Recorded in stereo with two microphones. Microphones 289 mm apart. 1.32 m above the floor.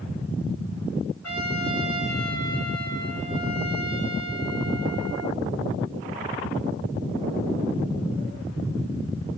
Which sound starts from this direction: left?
A trumpet, at 1.2 s.